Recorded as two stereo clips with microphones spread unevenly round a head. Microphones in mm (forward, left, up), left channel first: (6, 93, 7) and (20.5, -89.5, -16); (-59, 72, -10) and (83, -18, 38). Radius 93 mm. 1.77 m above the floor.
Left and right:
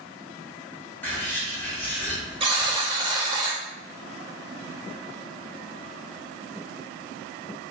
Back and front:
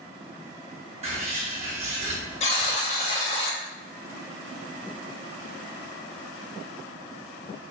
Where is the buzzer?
150° right, 0.9 m.